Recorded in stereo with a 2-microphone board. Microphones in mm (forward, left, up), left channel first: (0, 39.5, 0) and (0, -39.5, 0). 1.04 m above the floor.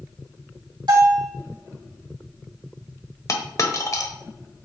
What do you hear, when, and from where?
0.9 s a bell: 80° right, 3 m
3.3 s a dropped coin: 50° left (ahead or behind), 1.2 m